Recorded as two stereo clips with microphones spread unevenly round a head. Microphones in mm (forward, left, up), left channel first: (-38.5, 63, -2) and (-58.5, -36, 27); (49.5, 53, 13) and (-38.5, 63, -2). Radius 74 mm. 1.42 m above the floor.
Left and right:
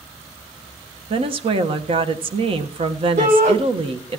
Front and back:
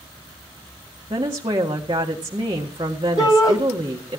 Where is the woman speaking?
135° right, 1.5 m.